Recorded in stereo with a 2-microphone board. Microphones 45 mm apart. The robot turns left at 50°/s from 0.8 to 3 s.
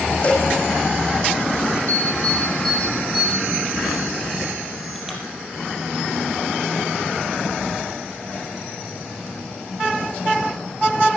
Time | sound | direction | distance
0.2 | a cowbell | 30° left (ahead or behind) | 6 m
1.9 | an alarm | 45° left (ahead or behind) | 4.5 m